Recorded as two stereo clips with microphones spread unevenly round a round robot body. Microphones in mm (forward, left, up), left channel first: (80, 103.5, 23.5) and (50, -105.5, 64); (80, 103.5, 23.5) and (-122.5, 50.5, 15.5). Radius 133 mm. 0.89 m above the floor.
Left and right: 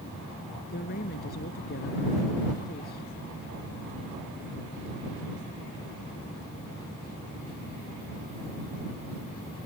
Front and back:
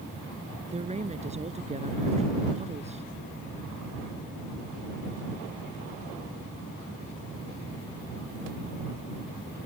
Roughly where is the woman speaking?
Behind left.